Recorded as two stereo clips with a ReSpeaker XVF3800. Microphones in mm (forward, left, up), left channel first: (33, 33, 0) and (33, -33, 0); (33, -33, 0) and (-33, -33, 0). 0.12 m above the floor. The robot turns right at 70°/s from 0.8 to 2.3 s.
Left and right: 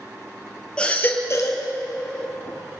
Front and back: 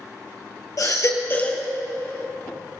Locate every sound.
0.8 s a baby crying: 20° left, 2.5 m; by 1.7 s 80° left, 2.5 m